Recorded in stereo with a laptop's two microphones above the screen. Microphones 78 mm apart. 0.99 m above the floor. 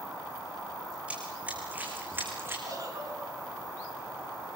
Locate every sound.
1.1 s running footsteps: 15° right (ahead or behind), 4.5 m; by 2.6 s 30° right (ahead or behind), 4.5 m
2.7 s a giggle: 55° right (ahead or behind), 6 m